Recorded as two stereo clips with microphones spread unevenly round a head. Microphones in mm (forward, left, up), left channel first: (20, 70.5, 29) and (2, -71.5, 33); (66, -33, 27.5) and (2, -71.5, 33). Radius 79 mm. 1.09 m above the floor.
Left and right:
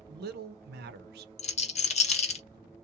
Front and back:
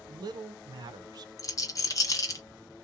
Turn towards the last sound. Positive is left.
turn(degrees=55)